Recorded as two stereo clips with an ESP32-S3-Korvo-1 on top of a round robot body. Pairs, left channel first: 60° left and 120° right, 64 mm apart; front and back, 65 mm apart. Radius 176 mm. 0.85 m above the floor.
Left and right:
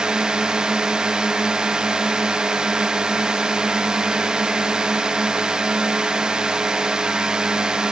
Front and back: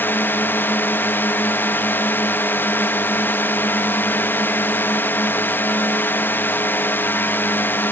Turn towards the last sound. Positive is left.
turn(degrees=-45)